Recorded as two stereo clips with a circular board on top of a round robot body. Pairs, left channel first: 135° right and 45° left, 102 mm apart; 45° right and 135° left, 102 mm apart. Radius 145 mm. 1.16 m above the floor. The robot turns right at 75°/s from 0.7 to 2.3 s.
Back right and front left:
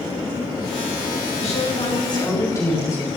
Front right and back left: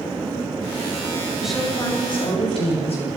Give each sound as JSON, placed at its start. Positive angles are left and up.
{"t": 1.4, "sound": "a woman speaking", "azimuth_deg": -145, "distance_m": 7.5}